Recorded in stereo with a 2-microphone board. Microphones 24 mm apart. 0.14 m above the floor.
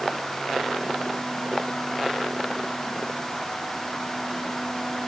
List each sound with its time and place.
Only background noise.